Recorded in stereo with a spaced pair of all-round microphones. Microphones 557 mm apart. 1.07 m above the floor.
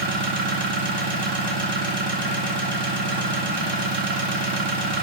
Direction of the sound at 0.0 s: 50° right (ahead or behind).